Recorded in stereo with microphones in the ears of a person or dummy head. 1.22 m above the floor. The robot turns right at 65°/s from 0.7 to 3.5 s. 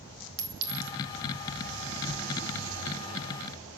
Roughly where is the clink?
Right.